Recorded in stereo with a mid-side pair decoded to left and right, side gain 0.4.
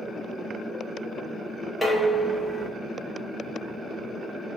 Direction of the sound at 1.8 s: 20° left.